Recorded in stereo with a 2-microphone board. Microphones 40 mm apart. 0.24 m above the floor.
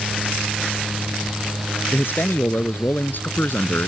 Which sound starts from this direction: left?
A man speaking, at 1.9 s.